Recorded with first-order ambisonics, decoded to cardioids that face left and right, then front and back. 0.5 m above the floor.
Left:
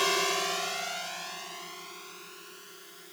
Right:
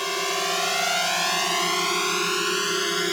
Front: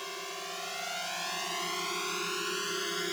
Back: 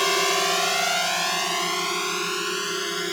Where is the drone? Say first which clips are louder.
Right 2 dB, back 18 dB; 175° left; by 3.1 s 110° right.